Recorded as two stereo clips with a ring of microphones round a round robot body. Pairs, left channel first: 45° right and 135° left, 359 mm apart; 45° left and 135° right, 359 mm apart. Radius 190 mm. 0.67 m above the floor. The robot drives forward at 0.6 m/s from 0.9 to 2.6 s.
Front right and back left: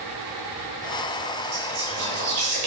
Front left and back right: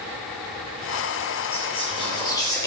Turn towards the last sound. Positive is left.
turn(degrees=125)